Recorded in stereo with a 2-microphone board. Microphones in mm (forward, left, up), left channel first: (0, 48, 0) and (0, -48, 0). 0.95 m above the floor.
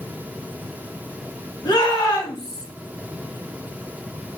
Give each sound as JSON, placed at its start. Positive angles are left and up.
{"t": 1.6, "sound": "a shout", "side_deg": 50, "distance_m": 1.5}